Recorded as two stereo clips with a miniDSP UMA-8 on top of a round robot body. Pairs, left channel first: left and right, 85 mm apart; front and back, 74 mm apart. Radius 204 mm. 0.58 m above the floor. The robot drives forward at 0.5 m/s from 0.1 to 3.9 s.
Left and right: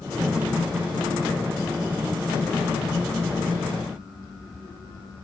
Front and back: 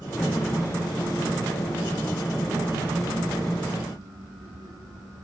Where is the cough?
I don't hear a cough.